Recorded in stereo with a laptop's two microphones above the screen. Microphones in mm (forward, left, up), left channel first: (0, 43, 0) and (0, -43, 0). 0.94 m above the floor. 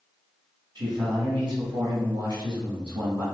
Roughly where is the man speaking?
Right.